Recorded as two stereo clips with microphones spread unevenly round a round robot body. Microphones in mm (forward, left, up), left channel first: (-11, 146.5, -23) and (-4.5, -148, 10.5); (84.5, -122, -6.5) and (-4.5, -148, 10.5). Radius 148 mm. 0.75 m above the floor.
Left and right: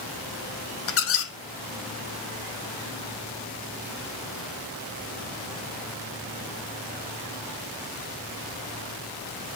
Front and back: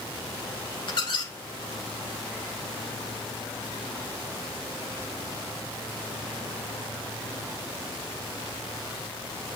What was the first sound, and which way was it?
A squeak, 55° left.